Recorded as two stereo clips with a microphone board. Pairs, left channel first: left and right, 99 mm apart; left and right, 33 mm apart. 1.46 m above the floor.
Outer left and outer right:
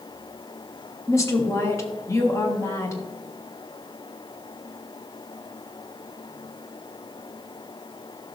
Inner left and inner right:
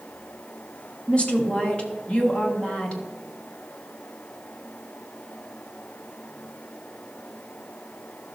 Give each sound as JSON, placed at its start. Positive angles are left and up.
{"t": 1.1, "sound": "a woman speaking", "side_deg": 30, "distance_m": 1.7}